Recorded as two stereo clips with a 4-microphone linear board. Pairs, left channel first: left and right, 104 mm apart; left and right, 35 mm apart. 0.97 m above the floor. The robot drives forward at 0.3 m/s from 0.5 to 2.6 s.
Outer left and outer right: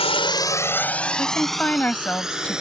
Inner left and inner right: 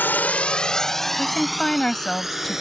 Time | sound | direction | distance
0.0 | a drone | 70° left (ahead or behind) | ?
1.2 | a woman speaking | 15° left (ahead or behind) | ?